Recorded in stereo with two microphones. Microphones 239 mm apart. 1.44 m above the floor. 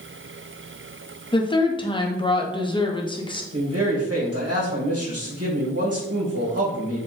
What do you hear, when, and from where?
1.3 s a woman speaking: 20° left (ahead or behind), 0.7 m
3.5 s a man speaking: 80° right, 1.7 m